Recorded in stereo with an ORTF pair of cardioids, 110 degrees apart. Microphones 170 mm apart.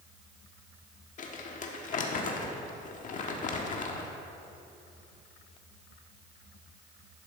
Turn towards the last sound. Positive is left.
turn(degrees=50)